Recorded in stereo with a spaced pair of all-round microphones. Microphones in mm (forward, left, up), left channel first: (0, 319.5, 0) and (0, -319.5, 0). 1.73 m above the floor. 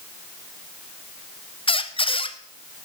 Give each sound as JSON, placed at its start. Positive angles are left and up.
{"t": 1.7, "sound": "a squeak", "side_deg": 10, "distance_m": 0.7}